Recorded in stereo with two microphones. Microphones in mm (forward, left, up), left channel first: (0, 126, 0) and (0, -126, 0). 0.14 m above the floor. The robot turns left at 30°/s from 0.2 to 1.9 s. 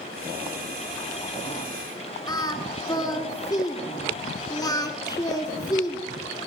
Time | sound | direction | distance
2.3 | singing | 15° left (ahead or behind) | 1.2 m